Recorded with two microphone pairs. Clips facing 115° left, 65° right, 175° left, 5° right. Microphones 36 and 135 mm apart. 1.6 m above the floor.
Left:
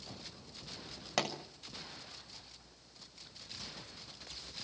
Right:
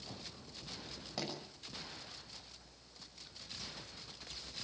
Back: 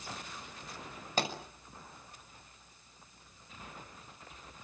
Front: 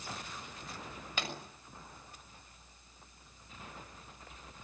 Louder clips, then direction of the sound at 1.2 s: Left 8 dB, back 7 dB; 125° left.